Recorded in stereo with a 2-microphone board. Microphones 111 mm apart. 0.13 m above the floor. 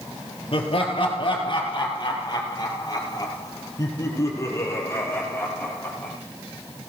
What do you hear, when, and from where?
0.5 s laughter: 55° left (ahead or behind), 4 m; by 6.1 s 15° left (ahead or behind), 5 m